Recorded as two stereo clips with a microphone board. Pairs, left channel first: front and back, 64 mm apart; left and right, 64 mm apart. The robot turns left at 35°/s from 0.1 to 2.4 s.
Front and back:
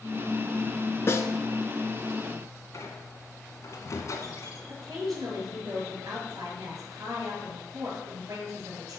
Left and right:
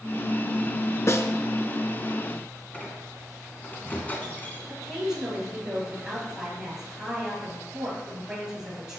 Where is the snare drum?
50° left, 0.9 m; by 1.3 s 40° left, 0.9 m.